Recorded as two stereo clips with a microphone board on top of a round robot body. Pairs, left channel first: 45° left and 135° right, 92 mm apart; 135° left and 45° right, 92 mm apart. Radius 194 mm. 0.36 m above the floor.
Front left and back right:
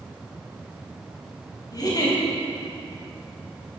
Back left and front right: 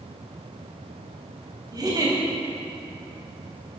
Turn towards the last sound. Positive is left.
turn(degrees=0)